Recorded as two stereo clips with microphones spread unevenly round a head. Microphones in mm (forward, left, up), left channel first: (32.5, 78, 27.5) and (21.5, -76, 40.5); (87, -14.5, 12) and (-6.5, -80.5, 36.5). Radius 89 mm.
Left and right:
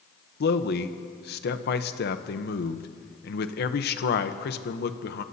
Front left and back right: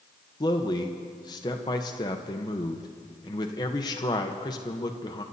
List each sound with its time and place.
0.4 s a man speaking: 95° left, 0.9 m